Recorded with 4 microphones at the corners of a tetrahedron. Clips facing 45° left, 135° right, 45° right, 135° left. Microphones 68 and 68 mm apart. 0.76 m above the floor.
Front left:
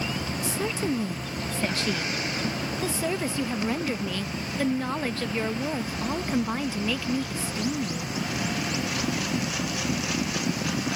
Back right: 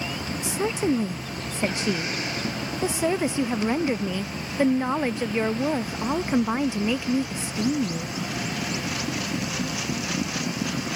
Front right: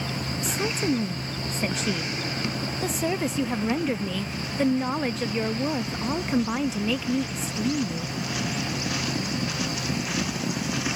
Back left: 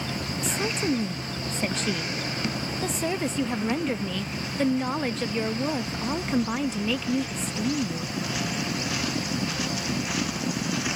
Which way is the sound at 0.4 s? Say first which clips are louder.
Back right 5 dB, front right 1 dB; 125° right.